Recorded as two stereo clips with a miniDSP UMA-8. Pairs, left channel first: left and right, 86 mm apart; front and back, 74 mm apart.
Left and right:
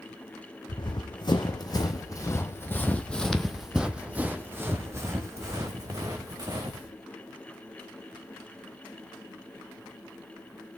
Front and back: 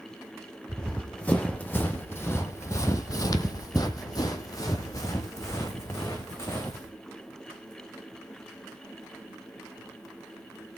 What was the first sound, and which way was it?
Running footsteps, 75° left.